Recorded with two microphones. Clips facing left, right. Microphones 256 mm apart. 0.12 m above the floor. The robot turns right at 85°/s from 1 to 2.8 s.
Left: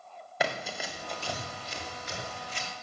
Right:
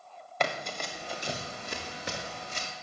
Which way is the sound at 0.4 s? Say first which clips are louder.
Even; 5° left (ahead or behind).